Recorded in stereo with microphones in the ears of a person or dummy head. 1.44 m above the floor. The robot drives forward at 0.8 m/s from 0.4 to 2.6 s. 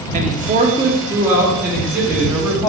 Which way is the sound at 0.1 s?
35° right (ahead or behind).